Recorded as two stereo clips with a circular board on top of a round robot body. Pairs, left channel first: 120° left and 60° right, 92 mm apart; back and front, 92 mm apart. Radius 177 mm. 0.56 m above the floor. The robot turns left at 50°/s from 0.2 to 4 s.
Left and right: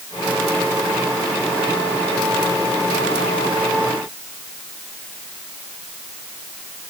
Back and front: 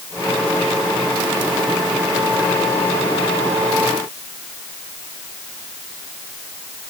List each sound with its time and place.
Only background noise.